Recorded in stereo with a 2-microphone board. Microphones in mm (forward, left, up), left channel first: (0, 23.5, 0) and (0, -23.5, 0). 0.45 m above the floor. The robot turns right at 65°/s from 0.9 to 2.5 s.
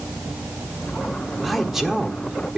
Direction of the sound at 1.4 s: Centre (ahead or behind).